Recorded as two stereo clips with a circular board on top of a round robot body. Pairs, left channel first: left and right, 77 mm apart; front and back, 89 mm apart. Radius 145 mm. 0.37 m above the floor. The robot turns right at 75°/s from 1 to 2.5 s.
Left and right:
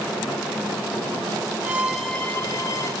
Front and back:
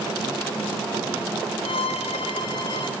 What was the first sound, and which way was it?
A violin, 30° right.